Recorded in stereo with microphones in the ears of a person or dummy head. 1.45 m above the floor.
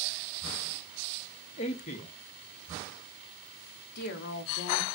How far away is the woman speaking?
About 0.5 m.